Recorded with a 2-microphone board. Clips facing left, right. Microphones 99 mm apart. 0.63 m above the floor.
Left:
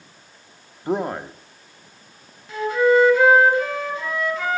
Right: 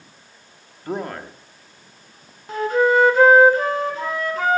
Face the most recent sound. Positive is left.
turn(degrees=-50)  # may be behind; listen again after turning